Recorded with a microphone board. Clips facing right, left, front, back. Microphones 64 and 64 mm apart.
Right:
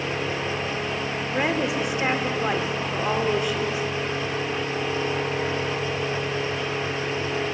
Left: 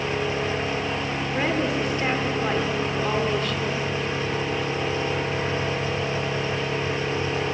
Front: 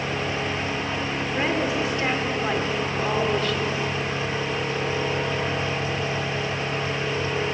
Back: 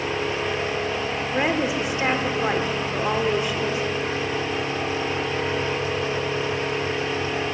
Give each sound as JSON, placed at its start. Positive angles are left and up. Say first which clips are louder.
{"t": 1.3, "sound": "a woman speaking", "louder": "right 1 dB, back 2 dB", "azimuth_deg": -135, "distance_m": 0.8}